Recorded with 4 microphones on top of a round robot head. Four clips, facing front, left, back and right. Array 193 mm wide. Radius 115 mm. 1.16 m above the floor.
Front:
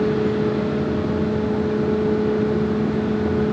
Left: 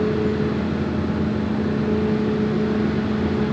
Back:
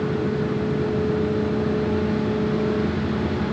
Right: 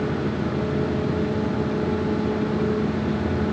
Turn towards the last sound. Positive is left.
No sound to turn to.